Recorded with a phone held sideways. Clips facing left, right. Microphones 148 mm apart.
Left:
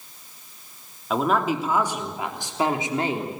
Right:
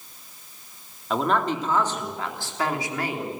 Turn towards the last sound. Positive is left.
turn(degrees=25)  # may be behind; listen again after turning